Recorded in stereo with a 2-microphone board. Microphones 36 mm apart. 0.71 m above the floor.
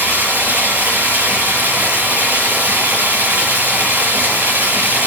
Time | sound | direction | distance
0.0 | running water | 85° right | 7.5 m